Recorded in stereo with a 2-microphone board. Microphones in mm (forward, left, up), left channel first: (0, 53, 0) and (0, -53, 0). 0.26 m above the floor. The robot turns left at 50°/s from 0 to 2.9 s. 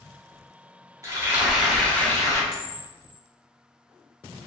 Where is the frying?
150° right, 1.1 m; by 2.4 s 140° left, 1.1 m.